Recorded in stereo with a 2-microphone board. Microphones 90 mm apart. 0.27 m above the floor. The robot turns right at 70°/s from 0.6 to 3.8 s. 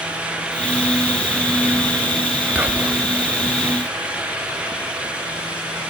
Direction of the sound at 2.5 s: 20° right (ahead or behind).